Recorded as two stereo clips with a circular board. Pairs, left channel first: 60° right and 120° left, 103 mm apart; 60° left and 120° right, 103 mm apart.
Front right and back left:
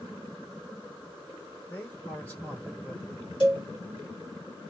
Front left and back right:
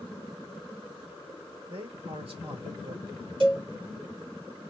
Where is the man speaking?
130° right, 3 m.